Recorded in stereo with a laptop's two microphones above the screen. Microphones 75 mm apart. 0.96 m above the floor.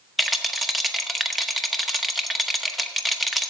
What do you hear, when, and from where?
0.2 s a rattle: centre (ahead or behind), 0.9 m